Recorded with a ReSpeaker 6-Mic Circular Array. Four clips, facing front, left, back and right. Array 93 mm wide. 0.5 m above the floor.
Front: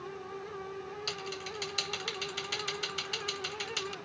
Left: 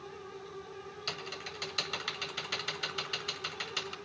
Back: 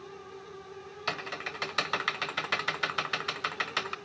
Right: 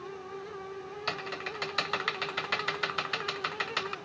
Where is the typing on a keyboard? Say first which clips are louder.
Right 8 dB, back 3 dB; 145° right, 0.6 m.